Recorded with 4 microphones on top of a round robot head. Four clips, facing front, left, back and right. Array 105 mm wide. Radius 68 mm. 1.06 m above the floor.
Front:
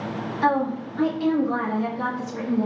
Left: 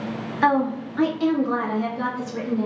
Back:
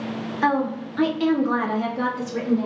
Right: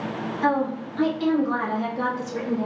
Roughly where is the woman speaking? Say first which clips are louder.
Left 3 dB, even; left.